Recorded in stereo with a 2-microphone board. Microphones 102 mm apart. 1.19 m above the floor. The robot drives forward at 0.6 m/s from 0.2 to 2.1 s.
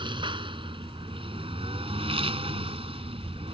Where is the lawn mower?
55° right (ahead or behind); by 3.5 s 70° right (ahead or behind).